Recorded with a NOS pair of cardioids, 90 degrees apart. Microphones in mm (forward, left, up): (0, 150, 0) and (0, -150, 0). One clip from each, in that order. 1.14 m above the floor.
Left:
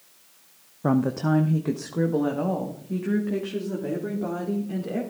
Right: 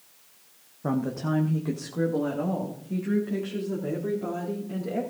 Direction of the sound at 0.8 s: 20° left.